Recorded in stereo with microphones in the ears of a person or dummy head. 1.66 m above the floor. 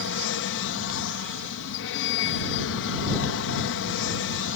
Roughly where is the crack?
I don't hear a crack.